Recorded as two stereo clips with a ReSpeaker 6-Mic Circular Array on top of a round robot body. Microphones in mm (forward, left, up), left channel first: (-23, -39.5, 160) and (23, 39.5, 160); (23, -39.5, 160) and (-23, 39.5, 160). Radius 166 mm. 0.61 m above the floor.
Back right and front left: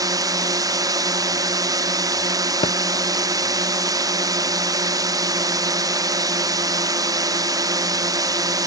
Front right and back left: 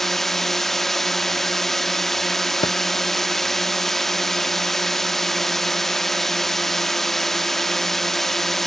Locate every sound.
0.0 s a drone: 25° left
2.6 s a thud: 95° right